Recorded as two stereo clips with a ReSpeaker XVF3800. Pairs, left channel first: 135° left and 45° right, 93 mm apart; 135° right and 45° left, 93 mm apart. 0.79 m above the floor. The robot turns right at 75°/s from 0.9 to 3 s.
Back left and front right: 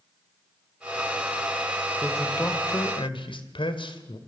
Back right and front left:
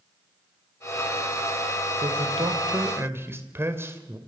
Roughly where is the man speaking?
Ahead left.